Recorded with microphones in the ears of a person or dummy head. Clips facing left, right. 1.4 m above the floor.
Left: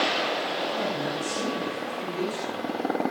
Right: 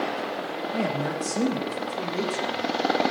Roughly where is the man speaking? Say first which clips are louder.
Right 2 dB; right.